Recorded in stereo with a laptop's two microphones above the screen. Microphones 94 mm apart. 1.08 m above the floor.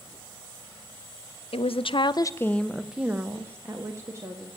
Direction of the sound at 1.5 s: 80° left.